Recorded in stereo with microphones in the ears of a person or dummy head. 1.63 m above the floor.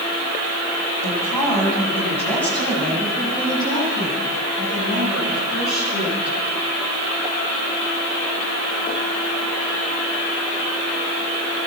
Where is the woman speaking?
15° left (ahead or behind), 9 m; by 6.3 s 5° right (ahead or behind), 15.5 m.